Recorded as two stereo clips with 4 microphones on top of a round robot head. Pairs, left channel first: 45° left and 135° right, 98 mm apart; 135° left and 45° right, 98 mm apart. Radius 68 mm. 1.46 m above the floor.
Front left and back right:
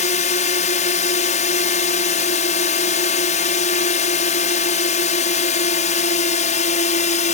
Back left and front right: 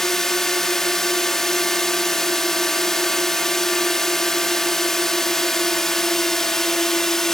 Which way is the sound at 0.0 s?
50° left.